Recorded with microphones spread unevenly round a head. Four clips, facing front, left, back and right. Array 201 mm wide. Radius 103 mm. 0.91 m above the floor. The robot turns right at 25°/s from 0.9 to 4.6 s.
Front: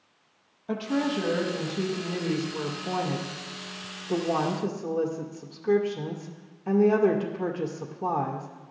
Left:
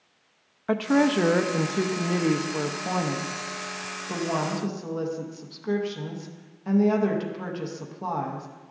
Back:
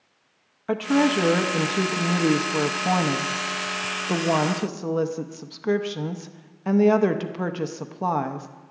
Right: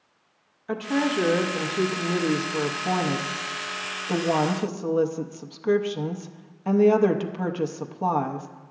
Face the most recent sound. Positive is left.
turn(degrees=-150)